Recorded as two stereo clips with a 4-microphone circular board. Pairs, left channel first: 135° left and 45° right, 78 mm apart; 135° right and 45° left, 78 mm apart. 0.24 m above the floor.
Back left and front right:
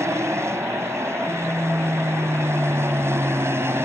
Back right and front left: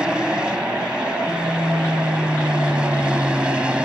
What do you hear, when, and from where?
0.0 s an aircraft: 25° right